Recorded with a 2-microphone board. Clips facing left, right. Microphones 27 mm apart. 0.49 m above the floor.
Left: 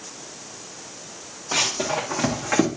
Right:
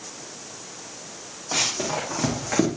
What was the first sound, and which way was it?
Running footsteps, 5° left (ahead or behind).